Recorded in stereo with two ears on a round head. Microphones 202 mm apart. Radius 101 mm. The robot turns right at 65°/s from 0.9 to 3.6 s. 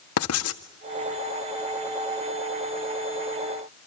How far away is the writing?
About 1.7 m.